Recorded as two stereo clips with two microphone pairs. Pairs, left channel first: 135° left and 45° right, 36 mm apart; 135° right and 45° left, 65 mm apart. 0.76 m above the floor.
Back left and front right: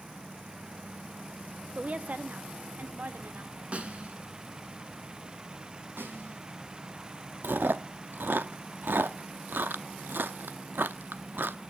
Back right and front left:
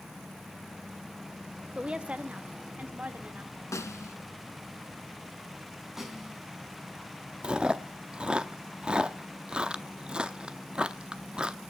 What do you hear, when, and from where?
1.8 s a woman speaking: 20° right, 0.6 m
3.7 s a snare drum: 100° right, 1.8 m
6.0 s a snare drum: 40° right, 3.5 m
7.4 s chewing: 30° right, 0.7 m